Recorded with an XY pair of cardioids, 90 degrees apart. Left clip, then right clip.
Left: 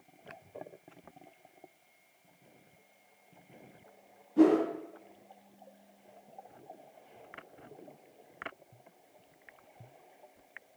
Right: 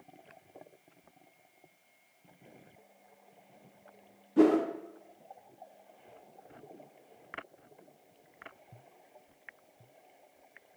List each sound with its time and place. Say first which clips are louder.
4.4 s a whoosh: even; 50° right, 0.6 m